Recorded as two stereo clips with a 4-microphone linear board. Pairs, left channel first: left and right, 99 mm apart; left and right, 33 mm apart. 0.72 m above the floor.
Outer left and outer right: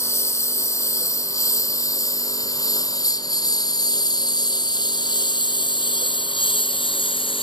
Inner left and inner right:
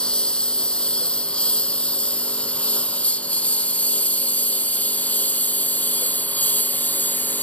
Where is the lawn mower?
25° left (ahead or behind); by 7.5 s 60° left (ahead or behind).